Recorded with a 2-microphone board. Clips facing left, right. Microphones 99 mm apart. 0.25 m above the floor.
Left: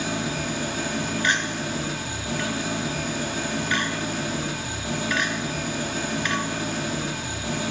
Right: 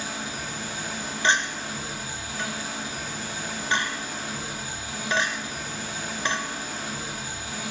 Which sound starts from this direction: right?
A clink, at 1.2 s.